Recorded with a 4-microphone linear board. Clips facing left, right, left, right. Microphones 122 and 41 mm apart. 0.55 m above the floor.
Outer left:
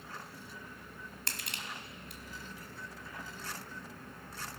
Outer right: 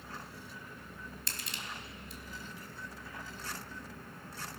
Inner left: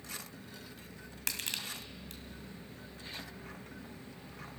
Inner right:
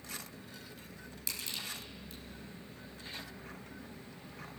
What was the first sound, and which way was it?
Crushing, 80° left.